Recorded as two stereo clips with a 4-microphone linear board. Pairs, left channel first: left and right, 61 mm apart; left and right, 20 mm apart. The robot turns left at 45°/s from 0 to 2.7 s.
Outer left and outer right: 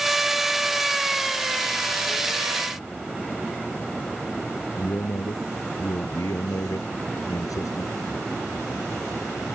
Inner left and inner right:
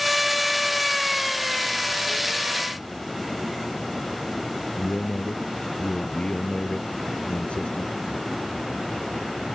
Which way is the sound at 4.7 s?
75° left (ahead or behind).